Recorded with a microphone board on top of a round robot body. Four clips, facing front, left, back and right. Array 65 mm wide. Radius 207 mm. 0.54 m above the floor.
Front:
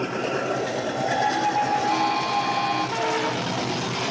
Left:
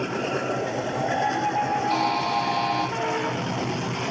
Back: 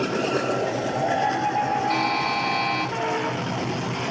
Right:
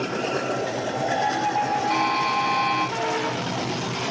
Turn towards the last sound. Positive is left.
turn(degrees=-130)